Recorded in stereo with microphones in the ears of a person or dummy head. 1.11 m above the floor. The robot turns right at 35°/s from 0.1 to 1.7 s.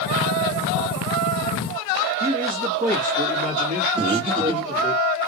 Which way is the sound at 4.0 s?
30° right (ahead or behind).